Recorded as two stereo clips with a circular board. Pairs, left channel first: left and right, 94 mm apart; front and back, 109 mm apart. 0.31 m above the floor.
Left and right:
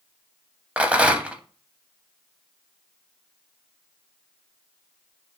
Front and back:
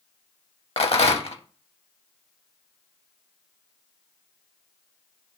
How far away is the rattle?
About 0.5 m.